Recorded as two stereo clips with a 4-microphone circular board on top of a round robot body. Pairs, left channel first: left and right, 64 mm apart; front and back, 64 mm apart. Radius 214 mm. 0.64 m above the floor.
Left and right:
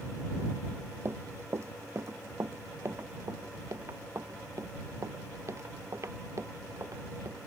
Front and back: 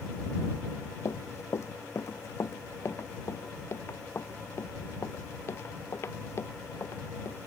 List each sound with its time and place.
1.1 s running footsteps: 40° right; by 7.4 s 50° right